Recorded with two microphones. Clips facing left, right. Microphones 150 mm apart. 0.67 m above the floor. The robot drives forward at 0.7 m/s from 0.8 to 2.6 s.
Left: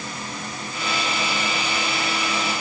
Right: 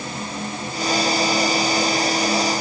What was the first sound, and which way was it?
Only background noise.